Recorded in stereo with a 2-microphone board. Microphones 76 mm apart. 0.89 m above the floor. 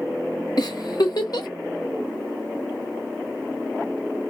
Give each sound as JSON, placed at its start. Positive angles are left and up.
{"t": 0.6, "sound": "a giggle", "side_deg": 60, "distance_m": 1.0}